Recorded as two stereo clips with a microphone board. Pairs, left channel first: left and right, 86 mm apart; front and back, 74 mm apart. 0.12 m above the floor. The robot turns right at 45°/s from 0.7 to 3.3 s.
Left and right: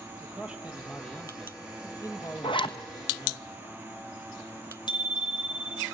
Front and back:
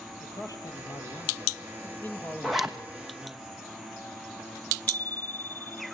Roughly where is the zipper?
Left.